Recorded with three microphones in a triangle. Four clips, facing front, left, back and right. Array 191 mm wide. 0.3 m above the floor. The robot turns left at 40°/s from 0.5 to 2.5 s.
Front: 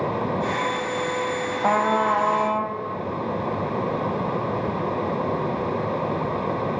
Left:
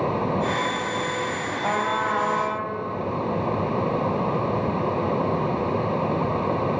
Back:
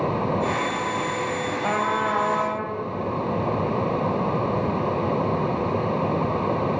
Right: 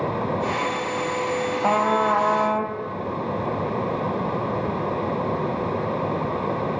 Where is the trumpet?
40° right, 1.4 m; by 2.8 s 75° right, 1.4 m.